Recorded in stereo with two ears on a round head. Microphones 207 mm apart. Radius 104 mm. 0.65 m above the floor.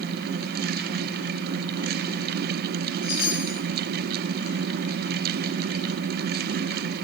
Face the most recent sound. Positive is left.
turn(degrees=45)  # may be behind; listen again after turning